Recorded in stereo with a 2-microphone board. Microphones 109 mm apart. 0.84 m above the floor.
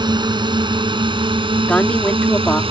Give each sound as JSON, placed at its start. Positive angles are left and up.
{"t": 0.0, "sound": "a drone", "side_deg": -40}
{"t": 1.7, "sound": "a woman speaking", "side_deg": 15}